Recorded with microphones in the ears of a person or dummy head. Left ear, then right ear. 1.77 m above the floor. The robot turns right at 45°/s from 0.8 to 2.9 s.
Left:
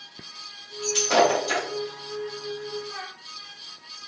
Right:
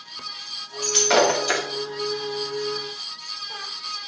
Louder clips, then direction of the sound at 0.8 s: Right 2 dB; 60° right (ahead or behind).